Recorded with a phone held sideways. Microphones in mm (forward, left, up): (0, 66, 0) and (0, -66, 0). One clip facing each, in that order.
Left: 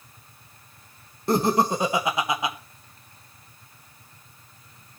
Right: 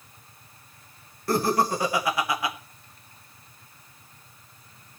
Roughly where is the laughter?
Left.